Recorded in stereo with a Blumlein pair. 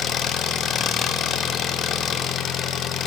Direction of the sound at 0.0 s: 25° left.